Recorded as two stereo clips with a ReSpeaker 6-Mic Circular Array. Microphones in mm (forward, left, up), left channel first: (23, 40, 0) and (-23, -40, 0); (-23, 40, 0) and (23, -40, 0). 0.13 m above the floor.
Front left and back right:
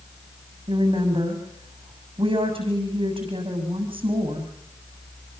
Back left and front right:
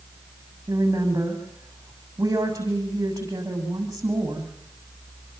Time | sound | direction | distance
0.7 | a woman speaking | 115° right | 7.5 m